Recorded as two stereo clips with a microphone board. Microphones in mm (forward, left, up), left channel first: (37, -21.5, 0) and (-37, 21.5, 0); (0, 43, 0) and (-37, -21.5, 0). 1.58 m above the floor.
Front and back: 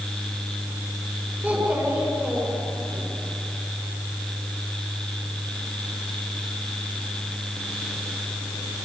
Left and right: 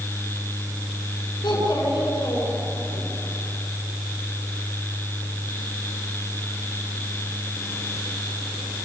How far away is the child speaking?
About 8.5 m.